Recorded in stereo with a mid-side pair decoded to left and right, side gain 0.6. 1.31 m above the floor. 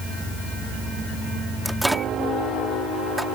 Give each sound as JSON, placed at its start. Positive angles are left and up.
{"t": 1.6, "sound": "a microwave", "azimuth_deg": -5}